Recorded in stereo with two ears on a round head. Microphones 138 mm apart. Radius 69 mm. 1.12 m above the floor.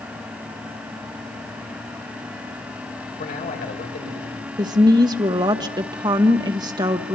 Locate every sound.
3.2 s a man speaking: 55° left (ahead or behind), 6 m
4.6 s a woman speaking: 25° right (ahead or behind), 1.2 m